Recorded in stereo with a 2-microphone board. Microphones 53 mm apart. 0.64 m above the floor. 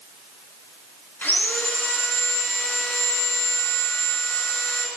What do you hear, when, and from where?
1.2 s sawing: 40° left (ahead or behind), 2.5 m